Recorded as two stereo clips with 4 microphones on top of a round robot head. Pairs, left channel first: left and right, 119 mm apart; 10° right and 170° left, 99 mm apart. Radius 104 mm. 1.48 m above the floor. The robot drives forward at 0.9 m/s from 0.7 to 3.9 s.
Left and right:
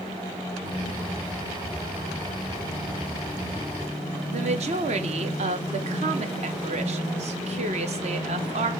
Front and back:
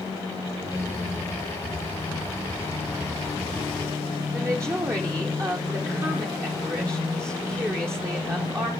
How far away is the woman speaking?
About 0.7 m.